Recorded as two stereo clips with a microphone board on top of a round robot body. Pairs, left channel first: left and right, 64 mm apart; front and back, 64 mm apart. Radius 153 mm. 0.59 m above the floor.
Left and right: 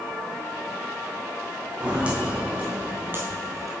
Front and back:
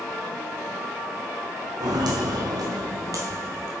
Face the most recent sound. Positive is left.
turn(degrees=-125)